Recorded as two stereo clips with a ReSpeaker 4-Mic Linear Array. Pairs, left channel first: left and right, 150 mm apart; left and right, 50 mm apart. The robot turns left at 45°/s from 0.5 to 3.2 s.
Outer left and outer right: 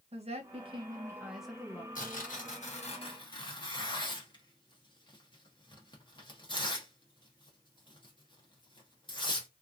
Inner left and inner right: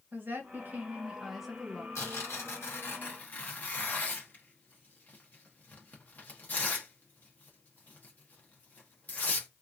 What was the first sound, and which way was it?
A woman speaking, 135° right.